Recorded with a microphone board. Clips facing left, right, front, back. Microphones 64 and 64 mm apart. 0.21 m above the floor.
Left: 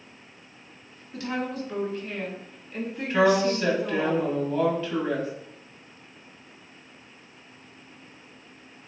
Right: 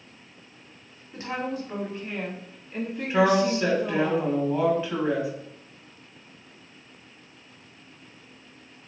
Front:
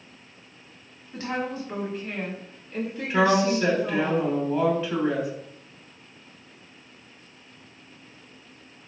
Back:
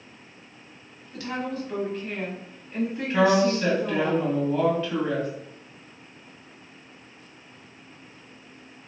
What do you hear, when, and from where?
1.1 s a woman speaking: 45° right, 1.2 m; by 4.1 s 165° left, 1.4 m
3.1 s a woman speaking: 55° right, 1.0 m